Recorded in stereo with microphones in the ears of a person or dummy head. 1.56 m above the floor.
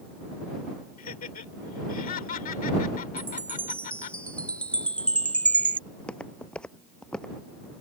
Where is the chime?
10° left (ahead or behind).